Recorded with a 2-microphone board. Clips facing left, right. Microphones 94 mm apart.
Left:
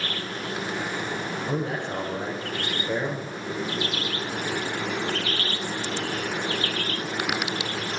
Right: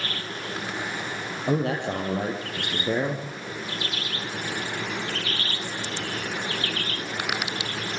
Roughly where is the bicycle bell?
I don't hear a bicycle bell.